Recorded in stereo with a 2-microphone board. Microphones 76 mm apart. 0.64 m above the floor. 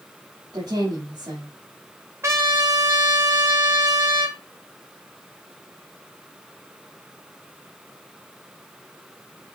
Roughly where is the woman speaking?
Right.